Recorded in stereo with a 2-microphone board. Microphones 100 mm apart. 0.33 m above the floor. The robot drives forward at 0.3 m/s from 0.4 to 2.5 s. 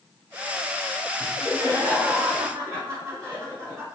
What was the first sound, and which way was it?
Laughter, 30° right (ahead or behind).